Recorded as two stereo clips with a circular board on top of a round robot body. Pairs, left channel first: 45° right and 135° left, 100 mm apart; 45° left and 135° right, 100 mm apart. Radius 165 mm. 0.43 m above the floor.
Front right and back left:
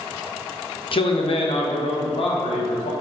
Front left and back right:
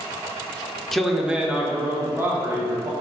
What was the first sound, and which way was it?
A man speaking, 40° right.